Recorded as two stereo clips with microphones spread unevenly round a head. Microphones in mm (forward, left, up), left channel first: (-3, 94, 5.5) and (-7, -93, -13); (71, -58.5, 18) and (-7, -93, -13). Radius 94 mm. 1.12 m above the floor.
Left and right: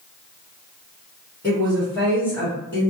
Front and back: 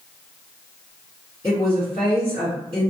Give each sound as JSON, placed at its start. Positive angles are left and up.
{"t": 1.4, "sound": "a woman speaking", "azimuth_deg": 170, "distance_m": 1.4}